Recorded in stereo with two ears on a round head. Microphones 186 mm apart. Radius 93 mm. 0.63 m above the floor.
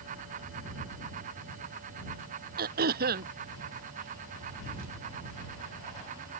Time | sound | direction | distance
2.6 | throat clearing | 50° right (ahead or behind) | ?